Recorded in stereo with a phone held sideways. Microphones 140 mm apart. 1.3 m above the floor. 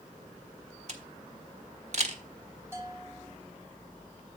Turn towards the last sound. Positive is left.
turn(degrees=-15)  # may be behind; listen again after turning